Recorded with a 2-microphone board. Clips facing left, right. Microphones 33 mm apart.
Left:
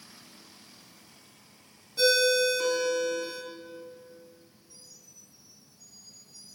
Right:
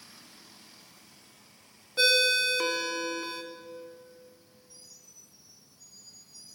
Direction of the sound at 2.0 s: 40° right (ahead or behind).